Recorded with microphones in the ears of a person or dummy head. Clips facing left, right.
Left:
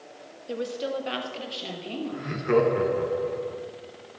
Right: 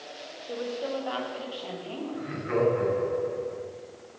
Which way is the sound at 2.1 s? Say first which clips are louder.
Left 6 dB; 45° left (ahead or behind).